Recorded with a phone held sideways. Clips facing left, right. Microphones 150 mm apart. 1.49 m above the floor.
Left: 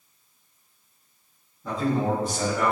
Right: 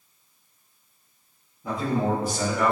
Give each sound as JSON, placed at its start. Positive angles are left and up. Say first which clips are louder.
{"t": 1.6, "sound": "a man speaking", "louder": "even", "side_deg": -10, "distance_m": 1.1}